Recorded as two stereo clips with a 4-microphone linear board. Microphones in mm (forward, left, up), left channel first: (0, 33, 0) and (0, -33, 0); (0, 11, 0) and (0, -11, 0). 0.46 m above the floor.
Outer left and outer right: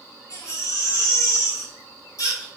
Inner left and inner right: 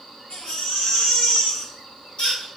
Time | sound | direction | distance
0.3 | a baby crying | 55° left (ahead or behind) | 3 m